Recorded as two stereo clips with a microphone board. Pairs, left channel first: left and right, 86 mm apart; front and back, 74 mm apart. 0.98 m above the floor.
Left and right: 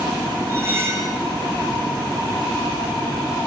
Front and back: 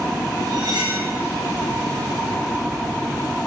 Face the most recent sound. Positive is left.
turn(degrees=-150)